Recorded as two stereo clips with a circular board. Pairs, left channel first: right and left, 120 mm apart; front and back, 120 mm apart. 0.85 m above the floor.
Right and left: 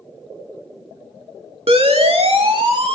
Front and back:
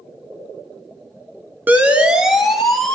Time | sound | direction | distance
1.7 | a siren | 105° left | 2.5 m